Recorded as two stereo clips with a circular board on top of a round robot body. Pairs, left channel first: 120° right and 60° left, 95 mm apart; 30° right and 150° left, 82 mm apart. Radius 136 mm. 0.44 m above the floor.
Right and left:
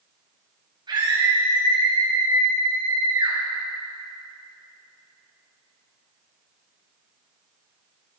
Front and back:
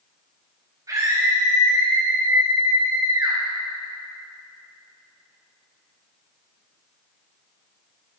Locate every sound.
0.9 s a scream: 100° left, 4.5 m